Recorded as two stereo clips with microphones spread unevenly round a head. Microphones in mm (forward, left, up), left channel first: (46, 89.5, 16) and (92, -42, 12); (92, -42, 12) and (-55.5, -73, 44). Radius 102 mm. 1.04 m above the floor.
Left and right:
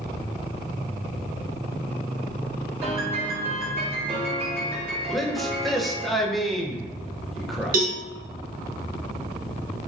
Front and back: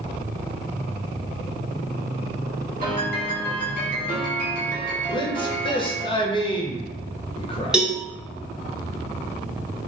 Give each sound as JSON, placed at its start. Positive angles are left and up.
{"t": 2.8, "sound": "a piano", "azimuth_deg": -140, "distance_m": 1.6}
{"t": 5.1, "sound": "a man speaking", "azimuth_deg": 20, "distance_m": 0.6}
{"t": 7.7, "sound": "a cowbell", "azimuth_deg": -80, "distance_m": 0.9}